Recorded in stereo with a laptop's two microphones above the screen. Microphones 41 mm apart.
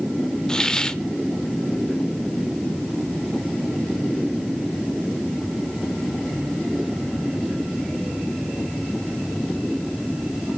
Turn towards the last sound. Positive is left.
turn(degrees=15)  # may be behind; listen again after turning